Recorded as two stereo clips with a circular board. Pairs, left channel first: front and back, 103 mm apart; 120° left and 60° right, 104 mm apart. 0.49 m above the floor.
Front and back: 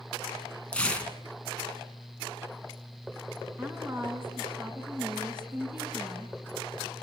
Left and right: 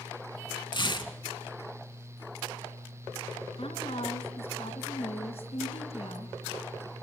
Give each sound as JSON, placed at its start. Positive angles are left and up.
{"t": 0.7, "sound": "tearing paper", "azimuth_deg": 80, "distance_m": 2.5}
{"t": 3.6, "sound": "a woman speaking", "azimuth_deg": 110, "distance_m": 5.0}